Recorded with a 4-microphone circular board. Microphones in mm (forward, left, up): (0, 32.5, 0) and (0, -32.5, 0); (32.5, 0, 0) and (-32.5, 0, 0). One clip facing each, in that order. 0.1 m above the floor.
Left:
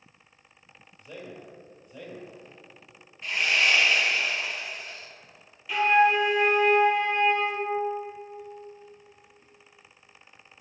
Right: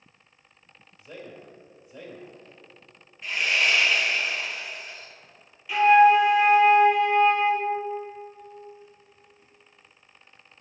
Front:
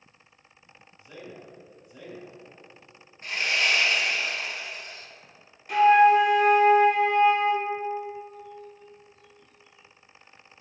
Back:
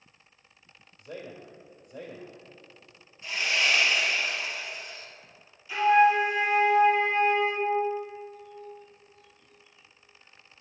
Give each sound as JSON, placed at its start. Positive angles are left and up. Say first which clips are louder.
{"t": 1.0, "sound": "a man speaking", "louder": "even, back 2 dB", "azimuth_deg": -165, "distance_m": 2.5}
{"t": 3.2, "sound": "sawing", "louder": "even, front 1 dB", "azimuth_deg": -5, "distance_m": 1.9}
{"t": 5.7, "sound": "a flute", "louder": "right 5 dB, front 4 dB", "azimuth_deg": -5, "distance_m": 1.2}